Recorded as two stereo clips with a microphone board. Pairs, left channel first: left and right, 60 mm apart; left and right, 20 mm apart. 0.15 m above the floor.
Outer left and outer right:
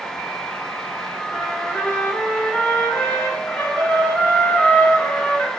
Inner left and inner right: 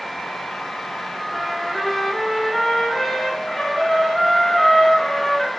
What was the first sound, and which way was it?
A trumpet, 35° left (ahead or behind).